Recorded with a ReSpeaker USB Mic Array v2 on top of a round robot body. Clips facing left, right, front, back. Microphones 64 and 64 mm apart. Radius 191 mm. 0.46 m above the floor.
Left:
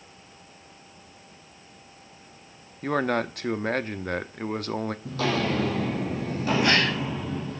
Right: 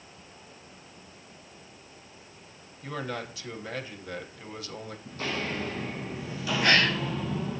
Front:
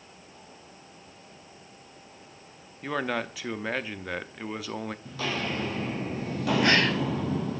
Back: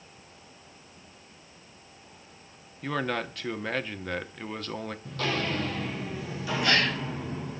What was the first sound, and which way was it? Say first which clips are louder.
A man speaking: left 10 dB, even; 80° left.